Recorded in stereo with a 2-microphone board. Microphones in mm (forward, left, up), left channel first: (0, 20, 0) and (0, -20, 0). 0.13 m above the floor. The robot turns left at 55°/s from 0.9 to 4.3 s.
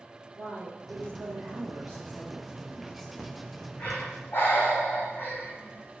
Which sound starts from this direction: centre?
Breathing, at 3.2 s.